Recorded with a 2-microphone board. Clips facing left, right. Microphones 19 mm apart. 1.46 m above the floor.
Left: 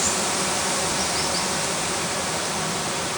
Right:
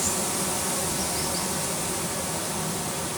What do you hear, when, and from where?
0.0 s running water: 35° left (ahead or behind), 0.7 m